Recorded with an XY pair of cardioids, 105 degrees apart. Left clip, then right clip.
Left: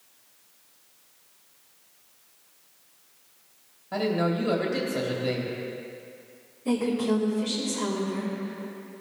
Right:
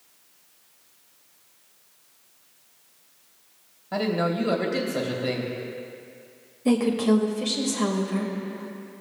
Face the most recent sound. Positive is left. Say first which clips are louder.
# right 4 dB
turn(degrees=-55)